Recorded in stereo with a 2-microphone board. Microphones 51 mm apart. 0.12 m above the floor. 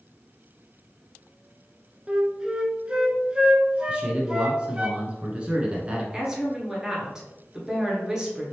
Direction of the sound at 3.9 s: 25° right (ahead or behind).